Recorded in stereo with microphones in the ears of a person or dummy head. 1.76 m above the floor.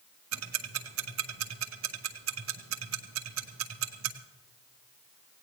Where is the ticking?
75° right (ahead or behind), 1.0 m.